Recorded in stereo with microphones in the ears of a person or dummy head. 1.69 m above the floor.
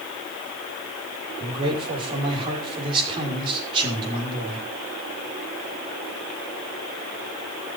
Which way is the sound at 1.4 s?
30° right (ahead or behind).